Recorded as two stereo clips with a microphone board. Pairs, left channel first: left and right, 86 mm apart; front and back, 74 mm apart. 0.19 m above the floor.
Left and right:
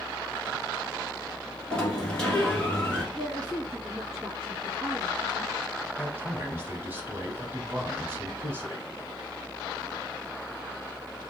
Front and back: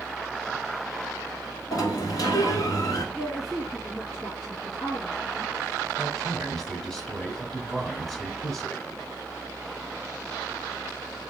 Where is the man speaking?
80° right, 1.1 m.